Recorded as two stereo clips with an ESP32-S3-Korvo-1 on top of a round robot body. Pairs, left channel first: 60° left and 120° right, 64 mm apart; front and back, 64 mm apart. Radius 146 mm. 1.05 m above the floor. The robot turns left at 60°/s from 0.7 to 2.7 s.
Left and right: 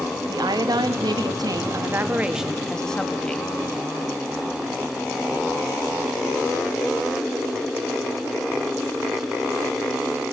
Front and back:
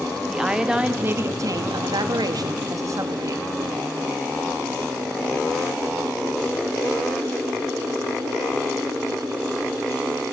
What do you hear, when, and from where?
0.3 s a woman speaking: 100° right, 1.6 m; by 3.5 s 140° left, 1.6 m